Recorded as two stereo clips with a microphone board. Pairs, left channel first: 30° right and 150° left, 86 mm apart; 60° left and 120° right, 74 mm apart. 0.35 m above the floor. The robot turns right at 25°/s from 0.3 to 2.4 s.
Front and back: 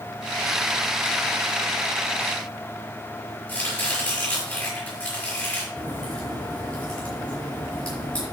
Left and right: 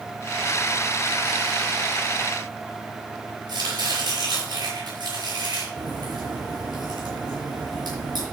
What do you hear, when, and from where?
3.5 s chopping: 105° right, 5.5 m
5.8 s a crack: 110° right, 6 m